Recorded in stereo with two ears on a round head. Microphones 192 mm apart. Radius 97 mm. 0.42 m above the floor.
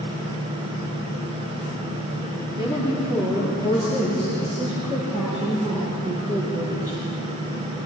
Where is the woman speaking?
10° right (ahead or behind), 8.5 m; by 7.0 s 35° right (ahead or behind), 9.5 m.